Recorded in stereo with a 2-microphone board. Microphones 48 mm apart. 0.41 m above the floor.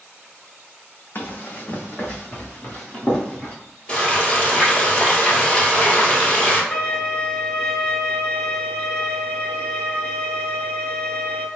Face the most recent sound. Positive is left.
turn(degrees=30)  # may be behind; listen again after turning